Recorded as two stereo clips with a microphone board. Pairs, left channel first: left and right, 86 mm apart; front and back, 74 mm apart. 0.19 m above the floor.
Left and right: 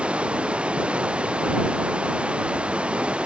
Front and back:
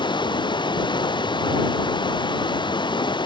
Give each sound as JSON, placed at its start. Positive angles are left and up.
{"t": 0.0, "sound": "running water", "azimuth_deg": -10}